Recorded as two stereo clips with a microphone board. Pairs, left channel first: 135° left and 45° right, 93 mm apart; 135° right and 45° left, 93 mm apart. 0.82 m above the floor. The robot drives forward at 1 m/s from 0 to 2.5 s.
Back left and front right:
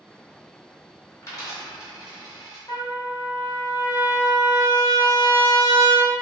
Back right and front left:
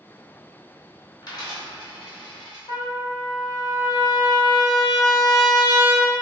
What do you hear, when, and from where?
1.2 s a dropped coin: 175° right, 1.2 m
2.7 s a trumpet: 175° right, 0.7 m